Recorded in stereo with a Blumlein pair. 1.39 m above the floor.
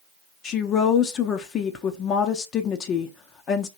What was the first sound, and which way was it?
A woman speaking, 25° left.